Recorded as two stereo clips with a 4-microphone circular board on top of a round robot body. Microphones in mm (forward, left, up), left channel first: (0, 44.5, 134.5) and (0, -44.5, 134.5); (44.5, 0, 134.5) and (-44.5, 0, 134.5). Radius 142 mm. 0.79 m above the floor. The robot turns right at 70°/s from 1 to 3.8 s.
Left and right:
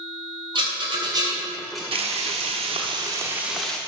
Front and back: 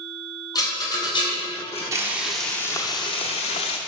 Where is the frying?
120° right, 0.9 m; by 3.8 s 10° left, 0.9 m.